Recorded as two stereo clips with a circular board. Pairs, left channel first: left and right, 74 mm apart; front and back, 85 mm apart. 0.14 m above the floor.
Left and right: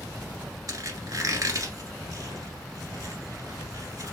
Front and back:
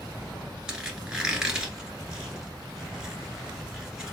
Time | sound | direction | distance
0.7 | a squeak | 100° right | 1.5 m